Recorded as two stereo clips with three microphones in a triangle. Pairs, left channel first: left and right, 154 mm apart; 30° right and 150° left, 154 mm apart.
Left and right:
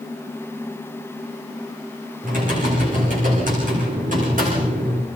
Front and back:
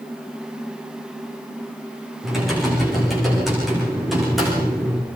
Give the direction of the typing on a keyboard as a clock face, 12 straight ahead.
4 o'clock.